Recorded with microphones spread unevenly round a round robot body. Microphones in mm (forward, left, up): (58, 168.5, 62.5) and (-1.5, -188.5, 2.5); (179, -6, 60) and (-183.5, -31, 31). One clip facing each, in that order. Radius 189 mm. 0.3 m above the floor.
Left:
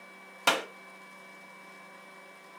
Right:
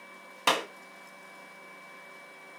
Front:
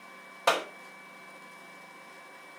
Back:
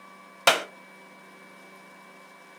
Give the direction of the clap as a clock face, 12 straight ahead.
6 o'clock.